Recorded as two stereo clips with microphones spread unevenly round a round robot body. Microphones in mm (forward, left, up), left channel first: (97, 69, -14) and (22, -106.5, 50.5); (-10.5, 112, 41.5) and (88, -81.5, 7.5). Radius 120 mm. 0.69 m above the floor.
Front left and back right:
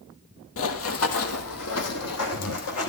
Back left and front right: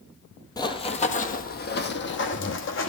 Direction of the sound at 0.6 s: 50° left.